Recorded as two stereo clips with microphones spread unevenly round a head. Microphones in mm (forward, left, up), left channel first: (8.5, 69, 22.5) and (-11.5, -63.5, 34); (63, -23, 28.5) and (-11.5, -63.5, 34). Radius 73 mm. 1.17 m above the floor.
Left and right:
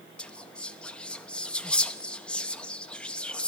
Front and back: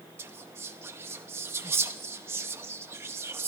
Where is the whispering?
155° left, 0.7 m.